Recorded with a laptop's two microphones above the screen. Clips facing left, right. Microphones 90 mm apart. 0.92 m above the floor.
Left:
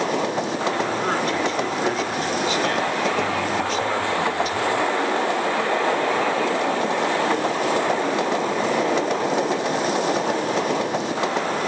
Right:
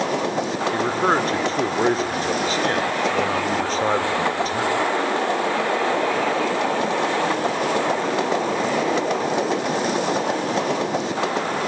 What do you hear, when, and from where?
0.7 s a man speaking: 35° right (ahead or behind), 2.5 m